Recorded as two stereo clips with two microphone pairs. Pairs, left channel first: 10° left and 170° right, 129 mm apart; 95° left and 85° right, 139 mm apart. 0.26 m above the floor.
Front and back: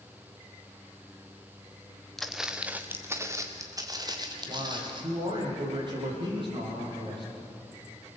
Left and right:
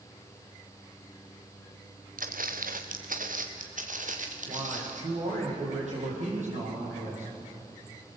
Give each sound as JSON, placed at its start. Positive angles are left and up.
{"t": 2.2, "sound": "footsteps", "azimuth_deg": -75, "distance_m": 1.8}
{"t": 4.5, "sound": "a man speaking", "azimuth_deg": -115, "distance_m": 9.5}